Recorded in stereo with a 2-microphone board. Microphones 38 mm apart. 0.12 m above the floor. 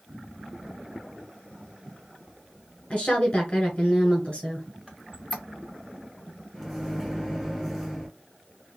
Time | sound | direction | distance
2.9 | a woman speaking | 35° left (ahead or behind) | 1.4 m
4.9 | a squeak | 5° right (ahead or behind) | 0.6 m
6.5 | a microwave | 5° right (ahead or behind) | 1.5 m